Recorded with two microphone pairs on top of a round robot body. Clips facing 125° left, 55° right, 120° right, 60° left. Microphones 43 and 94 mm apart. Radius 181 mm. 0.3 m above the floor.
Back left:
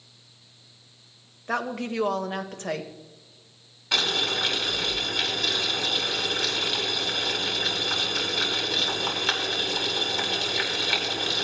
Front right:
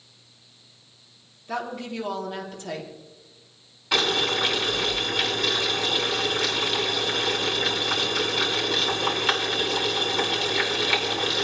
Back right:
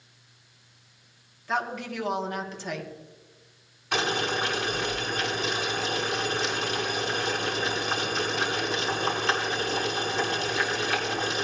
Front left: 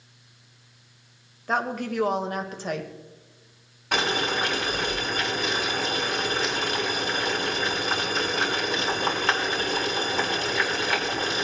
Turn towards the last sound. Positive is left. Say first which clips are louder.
# front right 2 dB, front left 2 dB
turn(degrees=25)